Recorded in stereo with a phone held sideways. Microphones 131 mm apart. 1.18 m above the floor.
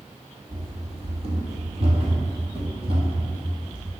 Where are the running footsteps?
45° right (ahead or behind), 1.6 m; by 3.9 s 40° right (ahead or behind), 3 m.